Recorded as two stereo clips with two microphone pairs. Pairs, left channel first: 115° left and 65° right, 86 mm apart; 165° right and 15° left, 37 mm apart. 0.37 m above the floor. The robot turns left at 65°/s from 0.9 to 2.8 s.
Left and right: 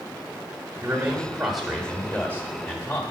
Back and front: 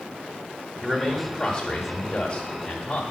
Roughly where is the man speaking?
Behind right.